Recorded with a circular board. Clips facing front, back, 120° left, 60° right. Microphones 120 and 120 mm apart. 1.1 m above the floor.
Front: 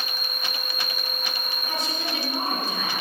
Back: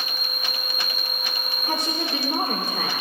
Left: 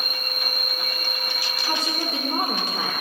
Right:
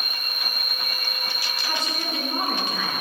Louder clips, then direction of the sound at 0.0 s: Back 1 dB, left 3 dB; 165° right.